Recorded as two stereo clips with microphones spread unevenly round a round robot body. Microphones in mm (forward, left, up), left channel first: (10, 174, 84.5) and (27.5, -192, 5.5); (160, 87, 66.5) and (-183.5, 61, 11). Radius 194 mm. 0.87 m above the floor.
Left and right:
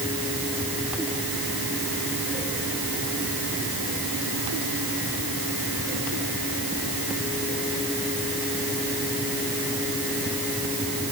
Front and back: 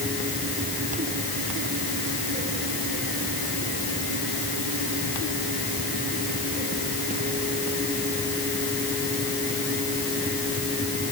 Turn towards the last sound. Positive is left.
No sound to turn to.